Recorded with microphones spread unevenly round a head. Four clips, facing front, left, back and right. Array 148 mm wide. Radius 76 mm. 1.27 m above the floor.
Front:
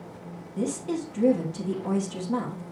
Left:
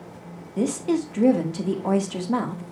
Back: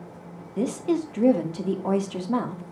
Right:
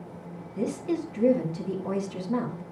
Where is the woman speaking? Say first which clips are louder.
Left 5 dB, back 4 dB; 130° left, 1.5 m.